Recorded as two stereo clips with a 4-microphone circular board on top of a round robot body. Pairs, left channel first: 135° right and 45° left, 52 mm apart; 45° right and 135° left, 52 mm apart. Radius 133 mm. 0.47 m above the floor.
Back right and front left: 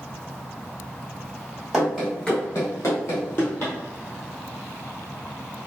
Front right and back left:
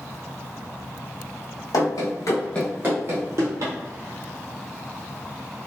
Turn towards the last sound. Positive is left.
turn(degrees=170)